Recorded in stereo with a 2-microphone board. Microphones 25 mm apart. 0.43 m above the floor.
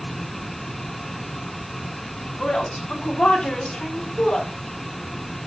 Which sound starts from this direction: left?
A woman speaking, at 2.4 s.